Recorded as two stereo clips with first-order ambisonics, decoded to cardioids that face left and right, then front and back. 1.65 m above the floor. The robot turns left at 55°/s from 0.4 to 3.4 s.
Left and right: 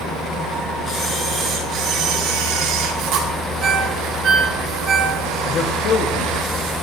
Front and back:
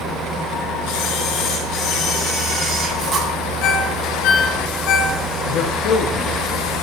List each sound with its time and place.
0.9 s a camera shutter: 10° left, 3 m; by 3.3 s 120° right, 3 m
3.6 s a ringtone: 25° right, 3.5 m
5.5 s a man speaking: 40° left, 1.5 m